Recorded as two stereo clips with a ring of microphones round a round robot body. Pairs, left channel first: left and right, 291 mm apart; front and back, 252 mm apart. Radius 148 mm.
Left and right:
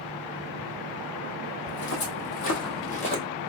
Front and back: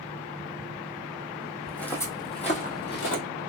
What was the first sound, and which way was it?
Footsteps, 90° left.